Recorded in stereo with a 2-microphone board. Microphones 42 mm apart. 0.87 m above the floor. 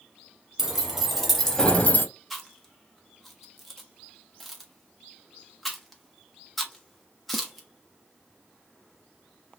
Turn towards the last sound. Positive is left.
turn(degrees=0)  # may be behind; listen again after turning